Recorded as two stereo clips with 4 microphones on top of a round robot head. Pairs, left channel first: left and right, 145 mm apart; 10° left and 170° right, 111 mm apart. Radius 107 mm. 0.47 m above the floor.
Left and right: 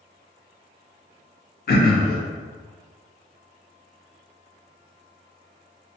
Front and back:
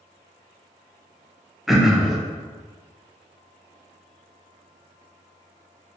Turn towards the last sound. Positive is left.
turn(degrees=100)